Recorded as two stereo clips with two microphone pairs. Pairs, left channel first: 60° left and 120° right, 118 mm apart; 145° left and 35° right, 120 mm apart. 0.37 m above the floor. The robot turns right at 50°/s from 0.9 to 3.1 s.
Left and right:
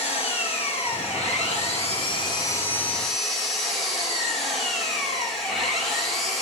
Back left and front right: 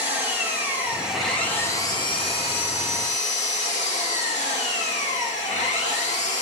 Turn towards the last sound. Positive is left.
turn(degrees=150)